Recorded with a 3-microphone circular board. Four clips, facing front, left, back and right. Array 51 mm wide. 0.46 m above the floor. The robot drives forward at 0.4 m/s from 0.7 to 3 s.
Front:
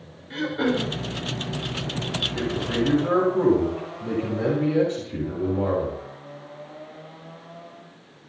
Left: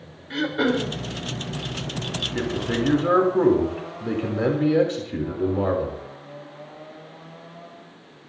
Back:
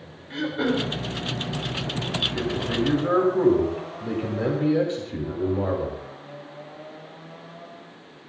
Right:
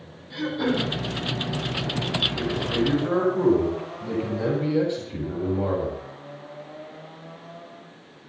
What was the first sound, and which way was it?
Throat clearing, 90° left.